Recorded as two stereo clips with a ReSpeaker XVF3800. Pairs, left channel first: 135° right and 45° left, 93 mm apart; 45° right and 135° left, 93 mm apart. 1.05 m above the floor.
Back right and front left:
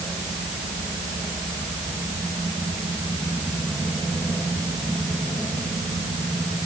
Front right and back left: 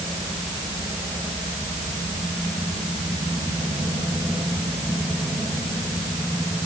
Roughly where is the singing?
No singing in this recording.